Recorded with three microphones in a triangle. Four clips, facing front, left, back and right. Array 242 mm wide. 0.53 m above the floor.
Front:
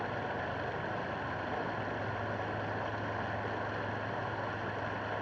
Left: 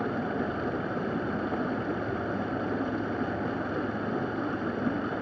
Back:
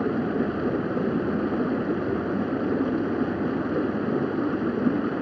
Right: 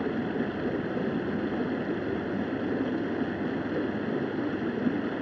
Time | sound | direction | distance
0.0 | running water | 165° right | ?